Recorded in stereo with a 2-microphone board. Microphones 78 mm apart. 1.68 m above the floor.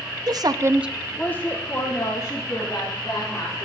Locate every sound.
0.3 s a woman speaking: 60° right (ahead or behind), 0.9 m; by 3.6 s 40° left (ahead or behind), 4.5 m